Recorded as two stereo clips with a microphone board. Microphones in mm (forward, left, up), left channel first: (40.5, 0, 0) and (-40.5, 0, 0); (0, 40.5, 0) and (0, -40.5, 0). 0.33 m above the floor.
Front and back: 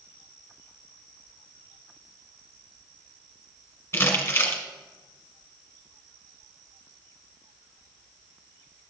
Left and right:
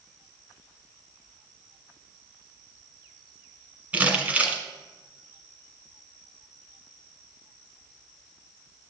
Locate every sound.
3.9 s crumpling: 35° right, 1.7 m